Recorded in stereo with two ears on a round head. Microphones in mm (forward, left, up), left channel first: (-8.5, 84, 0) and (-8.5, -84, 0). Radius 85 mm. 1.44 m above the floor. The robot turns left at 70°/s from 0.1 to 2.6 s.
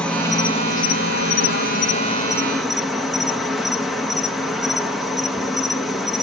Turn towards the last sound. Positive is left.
turn(degrees=0)